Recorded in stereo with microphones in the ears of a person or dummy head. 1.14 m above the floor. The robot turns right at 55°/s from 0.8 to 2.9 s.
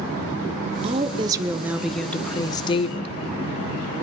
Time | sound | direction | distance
0.8 | a woman speaking | 55° right | 0.7 m